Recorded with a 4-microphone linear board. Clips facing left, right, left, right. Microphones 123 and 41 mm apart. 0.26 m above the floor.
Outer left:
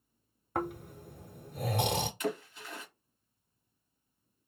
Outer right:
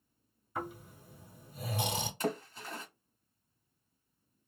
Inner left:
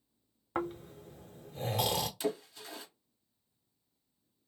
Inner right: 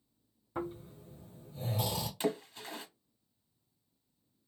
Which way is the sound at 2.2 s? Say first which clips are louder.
Even, inner right 1 dB; 40° right (ahead or behind).